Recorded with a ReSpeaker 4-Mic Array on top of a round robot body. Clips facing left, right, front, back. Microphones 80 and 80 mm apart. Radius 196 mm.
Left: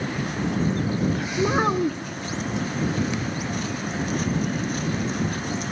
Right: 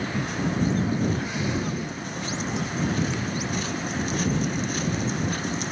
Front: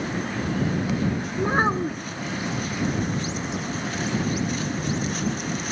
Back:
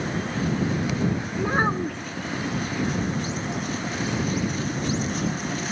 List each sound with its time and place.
1.4 s a child speaking: 80° left